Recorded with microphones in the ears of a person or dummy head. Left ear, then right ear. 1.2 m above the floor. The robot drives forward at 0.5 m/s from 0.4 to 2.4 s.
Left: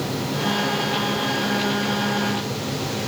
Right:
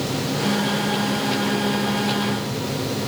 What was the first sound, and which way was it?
Only background noise.